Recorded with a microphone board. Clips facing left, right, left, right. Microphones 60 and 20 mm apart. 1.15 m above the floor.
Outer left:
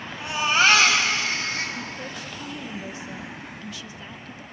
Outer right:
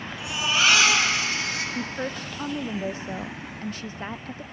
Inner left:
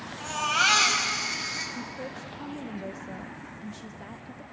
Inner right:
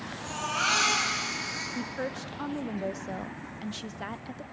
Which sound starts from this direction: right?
A woman speaking, at 1.8 s.